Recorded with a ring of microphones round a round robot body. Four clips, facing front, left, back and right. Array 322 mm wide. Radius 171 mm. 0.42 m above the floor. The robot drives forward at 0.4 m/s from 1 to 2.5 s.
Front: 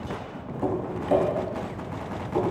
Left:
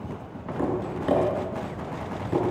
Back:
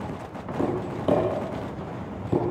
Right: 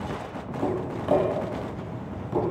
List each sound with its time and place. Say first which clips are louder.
0.6 s tapping: left 1 dB, back 1 dB; 155° left, 7.5 m